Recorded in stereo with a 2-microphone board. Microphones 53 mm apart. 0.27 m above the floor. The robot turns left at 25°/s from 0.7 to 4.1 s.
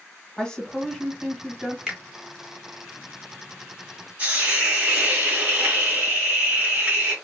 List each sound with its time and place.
0.4 s a woman speaking: 10° left (ahead or behind), 1.5 m; by 1.8 s 10° right (ahead or behind), 1.5 m
1.9 s a finger snap: 15° right (ahead or behind), 1.0 m
4.2 s a hiss: 25° right (ahead or behind), 1.7 m